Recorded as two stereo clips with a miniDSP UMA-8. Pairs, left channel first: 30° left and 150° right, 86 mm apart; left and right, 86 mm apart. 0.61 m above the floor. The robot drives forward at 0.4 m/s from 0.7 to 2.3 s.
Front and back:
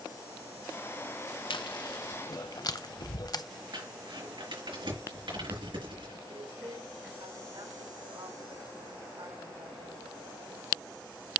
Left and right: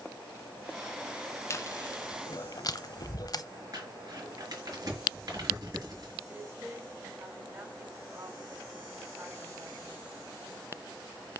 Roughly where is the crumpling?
Behind right.